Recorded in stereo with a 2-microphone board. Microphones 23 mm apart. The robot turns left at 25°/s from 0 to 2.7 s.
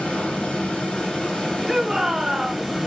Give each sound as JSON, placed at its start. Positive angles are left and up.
{"t": 0.0, "sound": "running water", "azimuth_deg": 85, "distance_m": 2.5}
{"t": 1.7, "sound": "a shout", "side_deg": -10, "distance_m": 1.1}